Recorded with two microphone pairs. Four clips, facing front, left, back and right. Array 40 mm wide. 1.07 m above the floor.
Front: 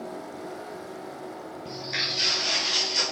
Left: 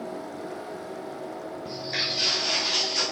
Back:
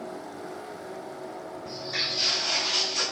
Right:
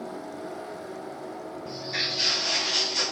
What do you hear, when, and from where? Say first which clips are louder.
1.6 s footsteps: even, front 1 dB; 35° left, 1.5 m; by 3.0 s straight ahead, 1.3 m